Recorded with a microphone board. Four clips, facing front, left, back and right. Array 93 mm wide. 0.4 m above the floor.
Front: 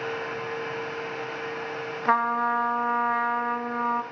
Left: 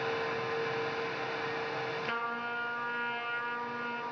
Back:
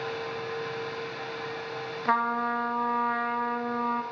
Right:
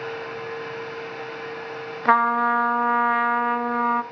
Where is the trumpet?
80° right, 0.6 m.